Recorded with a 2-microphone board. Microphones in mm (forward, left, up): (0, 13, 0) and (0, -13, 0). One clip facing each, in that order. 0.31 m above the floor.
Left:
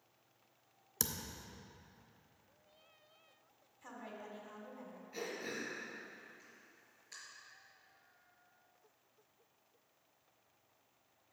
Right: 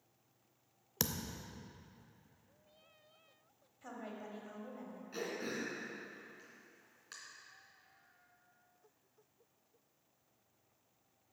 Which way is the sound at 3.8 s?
15° right (ahead or behind).